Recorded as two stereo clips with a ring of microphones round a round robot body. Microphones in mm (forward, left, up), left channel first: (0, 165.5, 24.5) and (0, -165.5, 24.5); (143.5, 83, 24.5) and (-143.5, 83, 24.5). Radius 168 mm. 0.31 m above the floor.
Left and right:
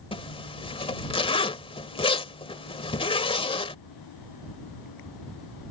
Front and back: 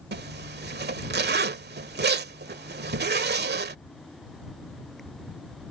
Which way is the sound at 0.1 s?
155° left.